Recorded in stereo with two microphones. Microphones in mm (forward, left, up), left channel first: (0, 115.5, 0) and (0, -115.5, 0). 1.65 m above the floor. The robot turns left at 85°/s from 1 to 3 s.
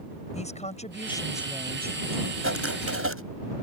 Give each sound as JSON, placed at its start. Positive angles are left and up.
{"t": 0.3, "sound": "a woman speaking", "azimuth_deg": 30}
{"t": 2.4, "sound": "writing", "azimuth_deg": -65}